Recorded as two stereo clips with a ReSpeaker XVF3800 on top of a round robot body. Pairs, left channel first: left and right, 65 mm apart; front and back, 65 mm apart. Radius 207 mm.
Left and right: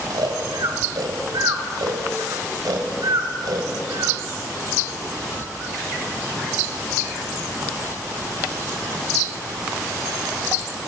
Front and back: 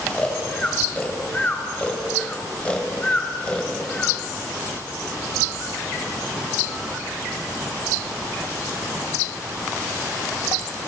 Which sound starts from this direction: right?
Snoring, at 0.1 s.